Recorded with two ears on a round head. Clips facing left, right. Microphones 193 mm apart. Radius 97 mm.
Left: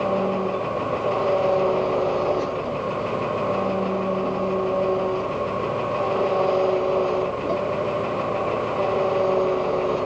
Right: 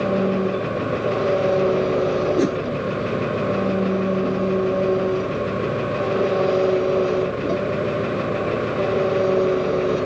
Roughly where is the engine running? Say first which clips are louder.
Right 3 dB; right.